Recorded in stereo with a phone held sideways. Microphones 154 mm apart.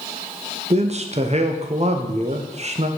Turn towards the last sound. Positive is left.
turn(degrees=-45)  # may be behind; listen again after turning